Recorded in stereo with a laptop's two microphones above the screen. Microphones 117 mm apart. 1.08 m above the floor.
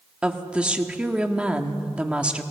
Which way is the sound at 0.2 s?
10° right (ahead or behind).